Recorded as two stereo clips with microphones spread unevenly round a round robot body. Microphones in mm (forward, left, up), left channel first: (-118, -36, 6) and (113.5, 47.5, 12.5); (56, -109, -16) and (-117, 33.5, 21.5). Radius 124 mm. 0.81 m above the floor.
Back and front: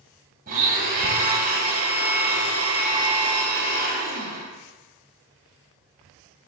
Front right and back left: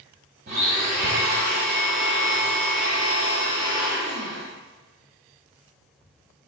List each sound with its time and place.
0.5 s a blender: 75° left, 1.0 m